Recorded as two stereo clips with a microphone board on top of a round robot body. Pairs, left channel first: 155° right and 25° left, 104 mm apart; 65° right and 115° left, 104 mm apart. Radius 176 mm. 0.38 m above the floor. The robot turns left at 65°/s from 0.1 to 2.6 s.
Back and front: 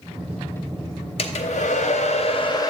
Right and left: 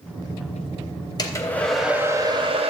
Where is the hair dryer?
120° right, 0.7 m; by 2.7 s 145° left, 0.7 m.